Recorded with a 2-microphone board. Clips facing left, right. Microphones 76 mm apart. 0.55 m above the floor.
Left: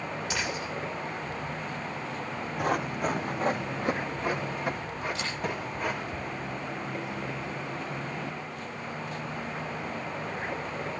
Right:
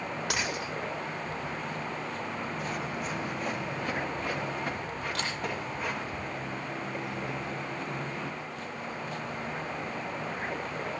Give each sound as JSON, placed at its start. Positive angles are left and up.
{"t": 0.3, "sound": "a dropped coin", "side_deg": -75, "distance_m": 9.5}
{"t": 2.6, "sound": "running footsteps", "side_deg": 60, "distance_m": 2.5}
{"t": 5.2, "sound": "a camera shutter", "side_deg": -70, "distance_m": 10.0}